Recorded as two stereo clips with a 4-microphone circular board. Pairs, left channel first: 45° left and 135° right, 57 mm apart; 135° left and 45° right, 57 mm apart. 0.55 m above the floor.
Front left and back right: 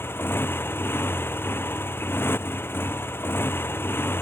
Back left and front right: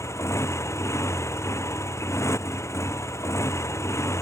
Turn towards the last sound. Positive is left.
turn(degrees=95)